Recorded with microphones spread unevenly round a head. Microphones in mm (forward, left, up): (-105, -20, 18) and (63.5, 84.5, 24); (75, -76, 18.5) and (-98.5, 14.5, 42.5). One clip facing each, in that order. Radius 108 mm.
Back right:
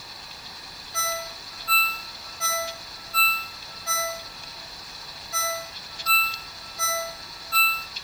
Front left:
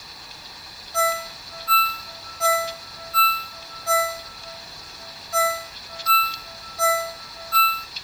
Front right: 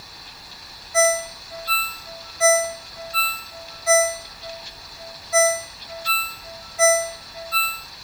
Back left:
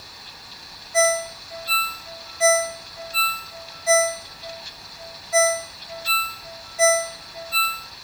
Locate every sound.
0.9 s a ringtone: 25° right, 1.8 m